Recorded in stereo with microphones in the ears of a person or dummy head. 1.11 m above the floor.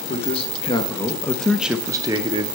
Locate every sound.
0.1 s a man speaking: 35° left (ahead or behind), 1.0 m; by 2.5 s 30° right (ahead or behind), 0.7 m